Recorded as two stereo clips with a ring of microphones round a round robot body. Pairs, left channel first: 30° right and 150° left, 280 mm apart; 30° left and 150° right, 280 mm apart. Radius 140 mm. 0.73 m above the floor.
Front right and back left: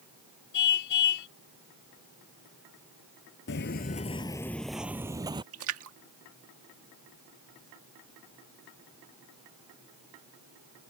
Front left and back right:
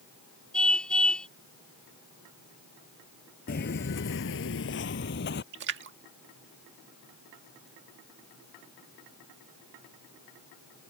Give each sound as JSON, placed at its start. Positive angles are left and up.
{"t": 0.5, "sound": "a car horn", "azimuth_deg": -55}
{"t": 3.5, "sound": "footsteps", "azimuth_deg": -10}
{"t": 5.5, "sound": "a splash", "azimuth_deg": 170}